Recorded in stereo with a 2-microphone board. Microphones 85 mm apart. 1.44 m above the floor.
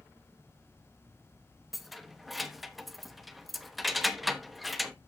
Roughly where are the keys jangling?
Centre.